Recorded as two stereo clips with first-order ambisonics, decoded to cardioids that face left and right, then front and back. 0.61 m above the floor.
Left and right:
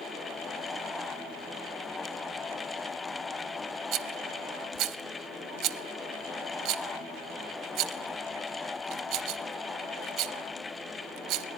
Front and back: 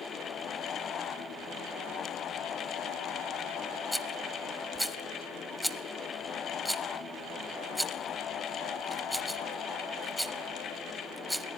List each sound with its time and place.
3.9 s a rattle: 90° right, 0.5 m